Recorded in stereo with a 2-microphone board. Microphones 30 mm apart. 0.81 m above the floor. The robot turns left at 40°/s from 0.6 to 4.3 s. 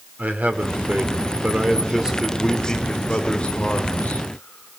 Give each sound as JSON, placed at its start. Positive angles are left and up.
{"t": 0.2, "sound": "a man speaking", "azimuth_deg": -110, "distance_m": 3.0}